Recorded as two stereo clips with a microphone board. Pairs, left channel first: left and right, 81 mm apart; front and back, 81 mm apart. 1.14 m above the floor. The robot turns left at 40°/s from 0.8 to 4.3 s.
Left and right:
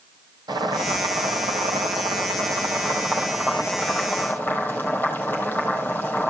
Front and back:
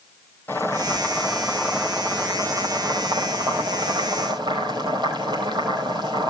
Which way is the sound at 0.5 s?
60° right.